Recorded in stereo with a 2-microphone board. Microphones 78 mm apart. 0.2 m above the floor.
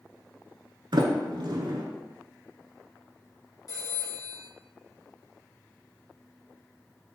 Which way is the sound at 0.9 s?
70° right (ahead or behind).